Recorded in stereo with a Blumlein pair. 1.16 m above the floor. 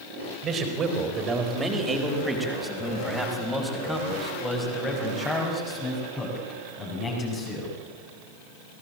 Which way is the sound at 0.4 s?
25° right.